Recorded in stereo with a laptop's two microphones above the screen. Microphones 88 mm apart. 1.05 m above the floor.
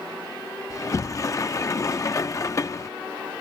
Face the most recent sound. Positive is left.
turn(degrees=40)  # may be behind; listen again after turning